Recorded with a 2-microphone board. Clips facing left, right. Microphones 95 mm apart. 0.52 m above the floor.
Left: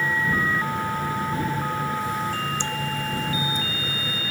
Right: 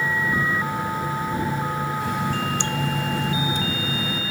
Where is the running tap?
80° right.